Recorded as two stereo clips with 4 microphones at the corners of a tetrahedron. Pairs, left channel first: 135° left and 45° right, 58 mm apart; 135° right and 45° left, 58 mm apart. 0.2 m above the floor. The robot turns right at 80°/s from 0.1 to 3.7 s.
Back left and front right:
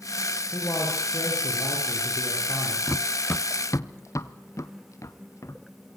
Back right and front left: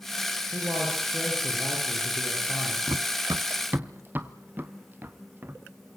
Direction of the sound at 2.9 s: 40° left.